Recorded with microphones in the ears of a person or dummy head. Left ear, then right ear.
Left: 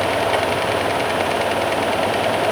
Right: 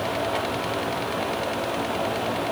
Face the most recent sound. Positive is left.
No sound to turn to.